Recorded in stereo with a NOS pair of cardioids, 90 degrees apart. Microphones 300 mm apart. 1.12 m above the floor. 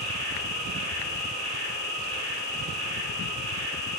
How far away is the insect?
About 1.1 m.